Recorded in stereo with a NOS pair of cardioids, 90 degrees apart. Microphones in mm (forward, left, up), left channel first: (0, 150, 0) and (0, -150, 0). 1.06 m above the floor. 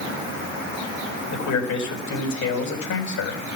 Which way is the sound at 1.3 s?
65° left.